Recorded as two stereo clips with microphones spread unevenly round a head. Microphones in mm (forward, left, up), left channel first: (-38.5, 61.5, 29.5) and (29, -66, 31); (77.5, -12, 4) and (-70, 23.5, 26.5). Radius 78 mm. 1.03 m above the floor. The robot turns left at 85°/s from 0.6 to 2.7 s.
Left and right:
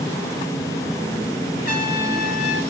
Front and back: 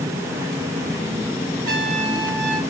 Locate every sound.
1.6 s a trumpet: 145° left, 3 m; by 2.6 s 60° left, 3 m